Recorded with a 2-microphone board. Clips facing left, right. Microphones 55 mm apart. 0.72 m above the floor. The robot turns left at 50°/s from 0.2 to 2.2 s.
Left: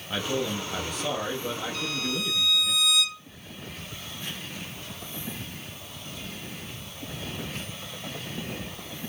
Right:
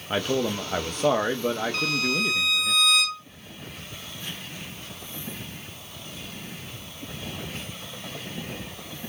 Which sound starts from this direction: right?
A violin, at 1.7 s.